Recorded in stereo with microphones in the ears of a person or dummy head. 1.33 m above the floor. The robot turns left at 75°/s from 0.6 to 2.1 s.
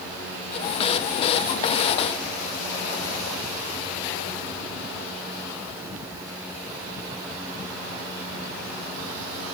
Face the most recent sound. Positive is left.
No sound to turn to.